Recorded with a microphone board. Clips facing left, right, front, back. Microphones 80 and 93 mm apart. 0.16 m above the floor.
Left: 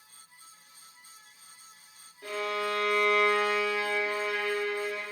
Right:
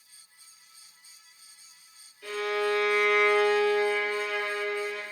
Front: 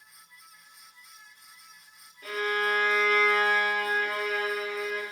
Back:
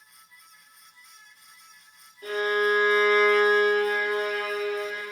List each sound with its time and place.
2.2 s a violin: 135° left, 1.9 m